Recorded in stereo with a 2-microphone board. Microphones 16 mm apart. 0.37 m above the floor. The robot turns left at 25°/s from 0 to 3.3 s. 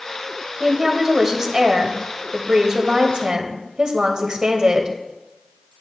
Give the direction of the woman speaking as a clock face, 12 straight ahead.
1 o'clock.